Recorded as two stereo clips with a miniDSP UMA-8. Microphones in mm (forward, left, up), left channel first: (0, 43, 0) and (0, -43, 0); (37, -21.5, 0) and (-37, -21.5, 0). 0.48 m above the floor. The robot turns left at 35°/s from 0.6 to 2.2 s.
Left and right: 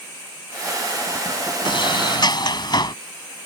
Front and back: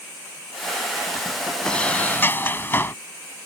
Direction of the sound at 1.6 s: 80° left.